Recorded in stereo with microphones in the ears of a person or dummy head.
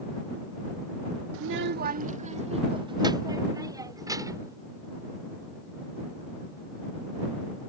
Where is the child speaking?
75° right (ahead or behind); by 4.6 s 15° right (ahead or behind).